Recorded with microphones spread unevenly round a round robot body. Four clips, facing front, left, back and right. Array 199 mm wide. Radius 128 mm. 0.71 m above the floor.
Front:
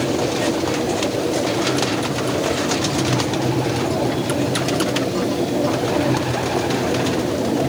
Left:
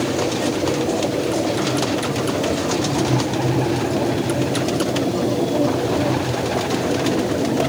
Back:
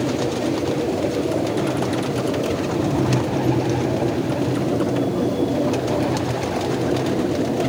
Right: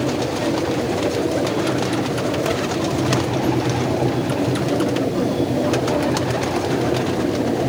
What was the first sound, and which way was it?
Only background noise.